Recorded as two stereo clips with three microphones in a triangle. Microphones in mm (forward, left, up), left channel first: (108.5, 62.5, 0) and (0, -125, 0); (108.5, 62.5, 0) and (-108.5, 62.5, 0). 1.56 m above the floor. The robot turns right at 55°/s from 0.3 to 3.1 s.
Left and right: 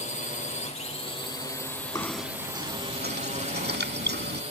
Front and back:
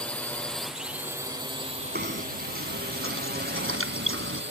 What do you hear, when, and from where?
0.0 s a drone: 80° left; by 4.5 s 175° right
1.9 s knocking: 135° left; by 4.4 s 160° right